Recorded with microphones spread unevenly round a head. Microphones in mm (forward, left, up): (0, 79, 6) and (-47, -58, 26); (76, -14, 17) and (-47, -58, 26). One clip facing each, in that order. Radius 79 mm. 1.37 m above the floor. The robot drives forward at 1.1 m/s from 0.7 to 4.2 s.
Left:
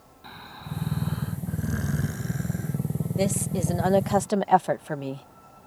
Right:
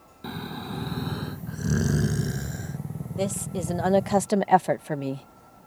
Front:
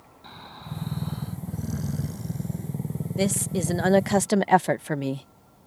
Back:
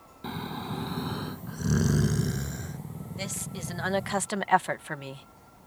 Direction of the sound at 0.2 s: 135° right.